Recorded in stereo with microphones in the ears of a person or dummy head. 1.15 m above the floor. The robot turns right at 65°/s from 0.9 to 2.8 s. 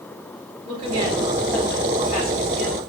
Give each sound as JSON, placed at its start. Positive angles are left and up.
{"t": 0.7, "sound": "a woman speaking", "azimuth_deg": -35, "distance_m": 6.0}